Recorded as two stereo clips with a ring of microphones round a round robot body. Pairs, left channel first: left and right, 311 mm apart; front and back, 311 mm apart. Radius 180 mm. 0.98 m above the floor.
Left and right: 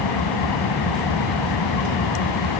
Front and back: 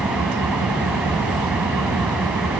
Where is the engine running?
90° left.